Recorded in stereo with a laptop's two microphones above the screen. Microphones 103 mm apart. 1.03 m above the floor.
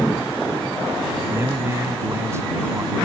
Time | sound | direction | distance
1.3 | a man speaking | 25° right (ahead or behind) | ?